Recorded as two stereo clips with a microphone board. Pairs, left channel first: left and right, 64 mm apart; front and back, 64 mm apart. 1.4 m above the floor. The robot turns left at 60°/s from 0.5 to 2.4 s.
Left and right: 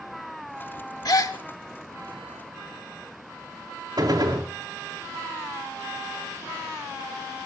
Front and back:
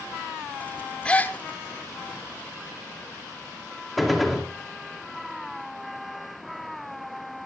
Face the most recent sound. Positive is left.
turn(degrees=-90)